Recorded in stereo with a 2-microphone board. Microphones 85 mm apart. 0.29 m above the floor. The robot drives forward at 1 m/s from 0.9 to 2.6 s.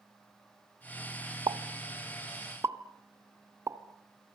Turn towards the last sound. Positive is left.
turn(degrees=-40)  # may be behind; listen again after turning